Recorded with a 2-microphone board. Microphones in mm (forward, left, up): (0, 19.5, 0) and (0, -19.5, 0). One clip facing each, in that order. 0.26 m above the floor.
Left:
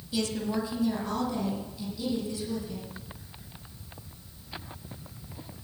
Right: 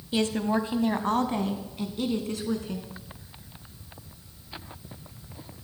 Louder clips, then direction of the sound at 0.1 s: Right 4 dB; 35° right (ahead or behind).